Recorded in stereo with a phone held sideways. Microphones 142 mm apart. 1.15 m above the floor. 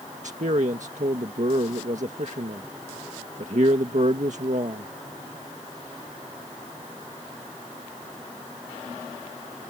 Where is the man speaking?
60° right (ahead or behind).